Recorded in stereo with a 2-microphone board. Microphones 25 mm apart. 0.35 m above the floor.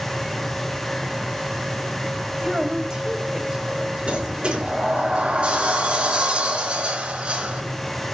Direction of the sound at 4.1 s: 45° right (ahead or behind).